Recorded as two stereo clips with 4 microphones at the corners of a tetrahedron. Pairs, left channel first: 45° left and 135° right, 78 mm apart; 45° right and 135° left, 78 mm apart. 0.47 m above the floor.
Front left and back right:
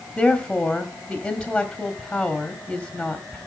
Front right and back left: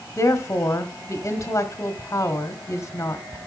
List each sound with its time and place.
0.2 s a woman speaking: 40° right, 1.2 m